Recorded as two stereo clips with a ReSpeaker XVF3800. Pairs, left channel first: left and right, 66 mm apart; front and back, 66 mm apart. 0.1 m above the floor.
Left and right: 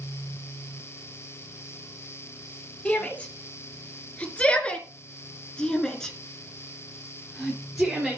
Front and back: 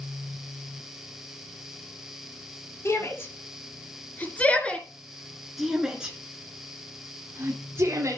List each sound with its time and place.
2.9 s a shout: 25° left, 2.5 m; by 8.2 s 175° right, 2.5 m